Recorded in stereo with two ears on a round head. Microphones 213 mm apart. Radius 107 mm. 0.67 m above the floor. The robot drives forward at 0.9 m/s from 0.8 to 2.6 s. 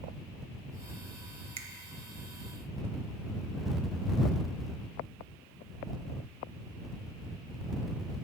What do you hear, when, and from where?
1.6 s a finger snap: 25° right (ahead or behind), 0.7 m